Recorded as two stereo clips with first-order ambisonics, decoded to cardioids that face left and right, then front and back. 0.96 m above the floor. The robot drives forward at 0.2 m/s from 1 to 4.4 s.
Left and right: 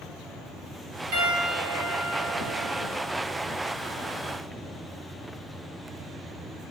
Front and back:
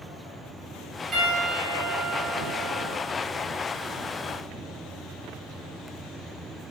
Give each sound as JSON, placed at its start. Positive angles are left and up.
{"t": 1.1, "sound": "a piano", "azimuth_deg": -100, "distance_m": 0.9}